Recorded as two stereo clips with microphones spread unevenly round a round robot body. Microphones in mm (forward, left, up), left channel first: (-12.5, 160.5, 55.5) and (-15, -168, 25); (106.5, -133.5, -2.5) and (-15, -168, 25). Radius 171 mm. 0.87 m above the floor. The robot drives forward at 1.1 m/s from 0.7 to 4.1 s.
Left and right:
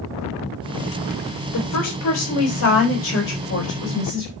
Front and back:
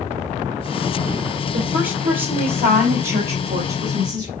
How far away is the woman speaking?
About 4 m.